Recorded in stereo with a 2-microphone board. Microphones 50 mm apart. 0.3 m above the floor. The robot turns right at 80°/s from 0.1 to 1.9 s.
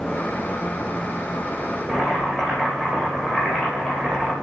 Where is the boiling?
15° left (ahead or behind), 9 m.